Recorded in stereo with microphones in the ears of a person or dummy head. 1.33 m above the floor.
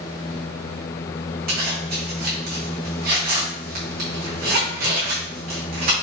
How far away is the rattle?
No rattle in this recording.